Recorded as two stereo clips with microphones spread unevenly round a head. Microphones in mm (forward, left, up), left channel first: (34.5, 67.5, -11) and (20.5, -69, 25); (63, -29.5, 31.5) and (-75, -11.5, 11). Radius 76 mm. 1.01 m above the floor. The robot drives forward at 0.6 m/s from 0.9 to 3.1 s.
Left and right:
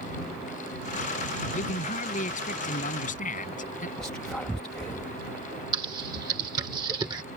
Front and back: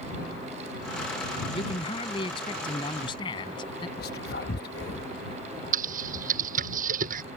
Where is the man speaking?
50° left; by 3.9 s 55° left.